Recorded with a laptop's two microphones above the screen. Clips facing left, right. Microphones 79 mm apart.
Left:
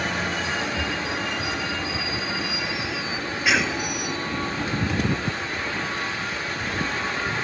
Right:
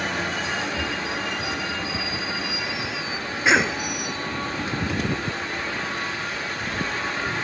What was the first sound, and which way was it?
A cough, 25° right (ahead or behind).